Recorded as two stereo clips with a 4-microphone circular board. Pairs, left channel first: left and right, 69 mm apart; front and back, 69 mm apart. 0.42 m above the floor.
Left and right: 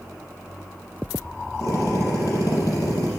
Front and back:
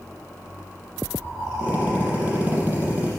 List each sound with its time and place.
1.6 s a drill: 115° left, 5.5 m